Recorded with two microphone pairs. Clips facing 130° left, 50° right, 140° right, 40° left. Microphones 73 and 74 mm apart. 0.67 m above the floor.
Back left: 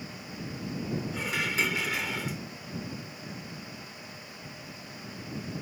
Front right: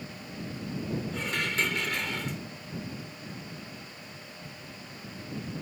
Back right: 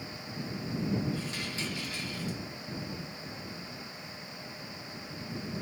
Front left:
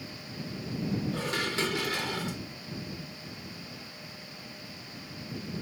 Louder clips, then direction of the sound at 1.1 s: Back left 1 dB, front left 6 dB; 40° left.